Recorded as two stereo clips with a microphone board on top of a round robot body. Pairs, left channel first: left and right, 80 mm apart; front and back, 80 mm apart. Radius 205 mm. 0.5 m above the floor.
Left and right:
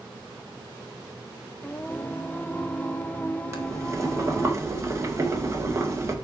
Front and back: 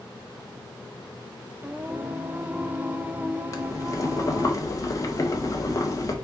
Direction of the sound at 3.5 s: 40° right.